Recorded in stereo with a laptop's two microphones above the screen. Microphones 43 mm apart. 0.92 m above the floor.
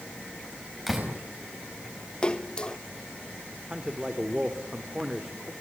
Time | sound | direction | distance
0.9 | a door slam | 5° right (ahead or behind) | 5 m
2.2 | a splash | 20° left (ahead or behind) | 0.7 m
3.7 | a man speaking | 15° right (ahead or behind) | 3 m